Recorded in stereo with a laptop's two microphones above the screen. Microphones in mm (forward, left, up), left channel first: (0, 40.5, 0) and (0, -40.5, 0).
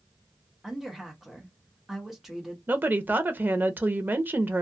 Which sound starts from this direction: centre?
A woman speaking, at 0.6 s.